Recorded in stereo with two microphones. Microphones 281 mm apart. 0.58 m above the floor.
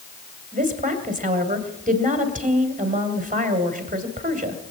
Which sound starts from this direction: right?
A woman speaking, at 0.5 s.